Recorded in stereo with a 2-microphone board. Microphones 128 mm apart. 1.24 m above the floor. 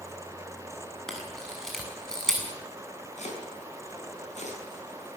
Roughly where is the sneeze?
No sneeze in this recording.